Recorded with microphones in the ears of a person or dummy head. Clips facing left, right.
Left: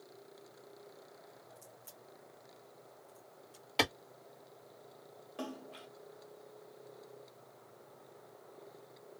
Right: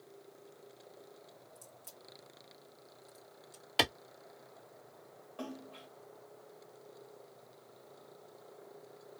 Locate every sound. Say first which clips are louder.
1.6 s a crack: even; 20° right (ahead or behind), 1.2 m
3.8 s a clap: even; 10° right (ahead or behind), 0.9 m
5.4 s a splash: left 1 dB; 25° left (ahead or behind), 1.6 m